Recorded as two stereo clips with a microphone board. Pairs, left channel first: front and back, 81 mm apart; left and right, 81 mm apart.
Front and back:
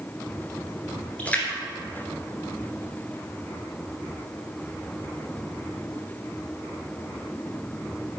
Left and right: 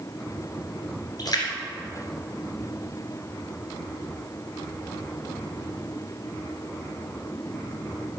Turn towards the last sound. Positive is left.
turn(degrees=70)